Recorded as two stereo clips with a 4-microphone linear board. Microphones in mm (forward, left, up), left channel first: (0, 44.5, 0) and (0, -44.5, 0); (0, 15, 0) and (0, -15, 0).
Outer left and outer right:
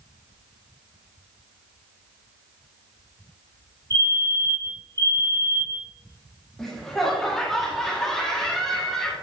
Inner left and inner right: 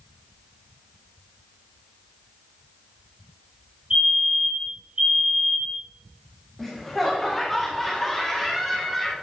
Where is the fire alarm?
45° right (ahead or behind), 2 m.